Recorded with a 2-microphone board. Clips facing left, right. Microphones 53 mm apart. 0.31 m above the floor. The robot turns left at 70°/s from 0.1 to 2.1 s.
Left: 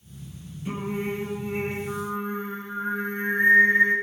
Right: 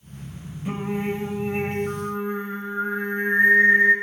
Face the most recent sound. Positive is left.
turn(degrees=-160)